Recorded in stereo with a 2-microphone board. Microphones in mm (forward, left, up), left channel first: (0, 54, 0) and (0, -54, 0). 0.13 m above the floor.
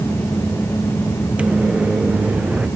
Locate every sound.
1.4 s a microwave: 10° right (ahead or behind)